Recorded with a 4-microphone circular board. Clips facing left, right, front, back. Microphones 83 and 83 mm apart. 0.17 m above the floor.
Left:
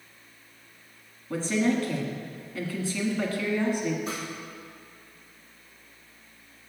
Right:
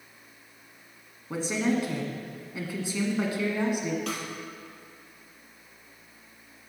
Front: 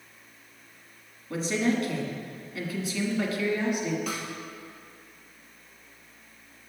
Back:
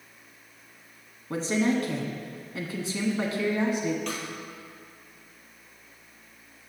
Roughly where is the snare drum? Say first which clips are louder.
Right 1 dB, even; right.